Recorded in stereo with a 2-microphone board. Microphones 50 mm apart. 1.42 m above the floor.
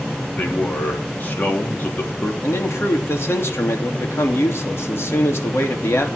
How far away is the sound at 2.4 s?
About 3 m.